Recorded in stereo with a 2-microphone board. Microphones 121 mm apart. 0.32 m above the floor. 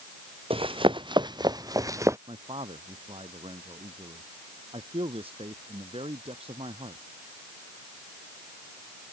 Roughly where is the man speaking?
Right.